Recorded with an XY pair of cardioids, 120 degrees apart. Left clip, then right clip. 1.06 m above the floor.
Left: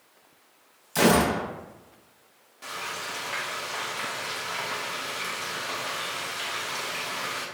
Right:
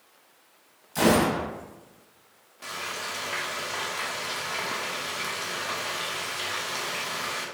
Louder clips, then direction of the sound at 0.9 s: Left 1 dB; 40° left.